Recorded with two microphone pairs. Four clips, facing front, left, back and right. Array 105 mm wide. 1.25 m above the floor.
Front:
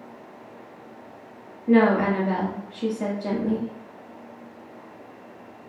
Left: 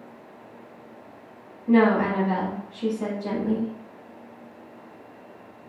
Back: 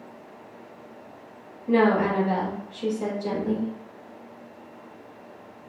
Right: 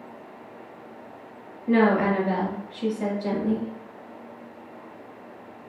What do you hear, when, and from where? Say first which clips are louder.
1.7 s a woman speaking: left 1 dB, front 2 dB; 30° right, 2.0 m